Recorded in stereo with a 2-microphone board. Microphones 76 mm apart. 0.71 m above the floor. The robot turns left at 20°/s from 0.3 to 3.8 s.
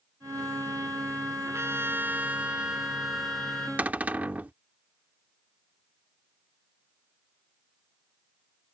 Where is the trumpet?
145° right; by 3.7 s 170° left.